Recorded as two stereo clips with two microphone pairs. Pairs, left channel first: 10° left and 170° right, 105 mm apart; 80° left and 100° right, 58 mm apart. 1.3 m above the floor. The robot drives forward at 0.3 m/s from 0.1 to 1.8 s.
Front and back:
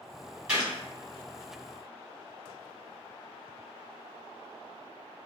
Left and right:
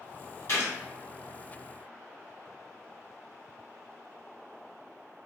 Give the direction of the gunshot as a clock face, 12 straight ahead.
8 o'clock.